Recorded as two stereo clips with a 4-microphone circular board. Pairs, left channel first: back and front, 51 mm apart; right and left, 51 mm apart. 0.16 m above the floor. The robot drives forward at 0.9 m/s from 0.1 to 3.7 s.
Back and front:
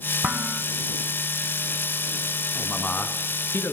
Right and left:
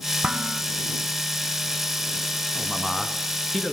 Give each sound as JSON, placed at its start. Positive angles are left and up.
{"t": 0.2, "sound": "dishes clattering", "azimuth_deg": 30, "distance_m": 0.9}
{"t": 2.5, "sound": "a man speaking", "azimuth_deg": -150, "distance_m": 1.0}